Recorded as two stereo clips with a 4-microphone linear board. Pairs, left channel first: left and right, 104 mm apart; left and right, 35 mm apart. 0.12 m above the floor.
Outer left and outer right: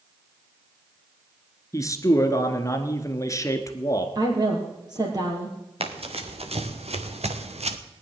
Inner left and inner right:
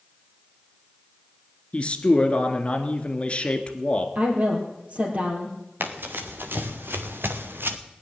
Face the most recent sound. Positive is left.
turn(degrees=-85)